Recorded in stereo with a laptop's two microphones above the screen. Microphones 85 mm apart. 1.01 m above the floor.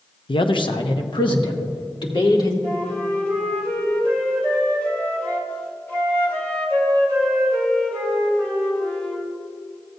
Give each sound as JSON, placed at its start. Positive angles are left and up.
{"t": 0.3, "sound": "a man speaking", "side_deg": 80, "distance_m": 0.6}
{"t": 2.6, "sound": "a flute", "side_deg": 25, "distance_m": 1.7}